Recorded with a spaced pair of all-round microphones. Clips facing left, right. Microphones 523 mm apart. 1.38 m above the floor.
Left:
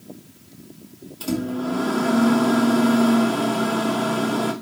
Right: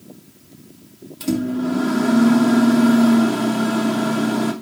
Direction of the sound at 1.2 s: 45° right (ahead or behind).